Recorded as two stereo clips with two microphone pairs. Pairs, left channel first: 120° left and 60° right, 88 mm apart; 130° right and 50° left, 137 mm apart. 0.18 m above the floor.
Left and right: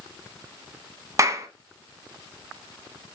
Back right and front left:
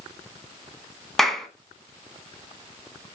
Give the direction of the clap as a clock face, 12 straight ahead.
1 o'clock.